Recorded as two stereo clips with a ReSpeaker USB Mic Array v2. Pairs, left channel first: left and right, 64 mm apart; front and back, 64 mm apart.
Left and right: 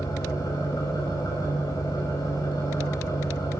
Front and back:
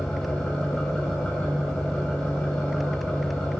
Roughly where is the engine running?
Left.